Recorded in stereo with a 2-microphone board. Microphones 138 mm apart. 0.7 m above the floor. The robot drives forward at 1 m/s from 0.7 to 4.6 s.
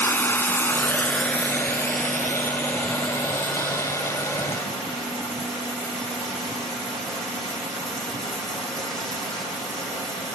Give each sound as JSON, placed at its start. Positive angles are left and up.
{"t": 0.0, "sound": "running water", "side_deg": 15, "distance_m": 0.9}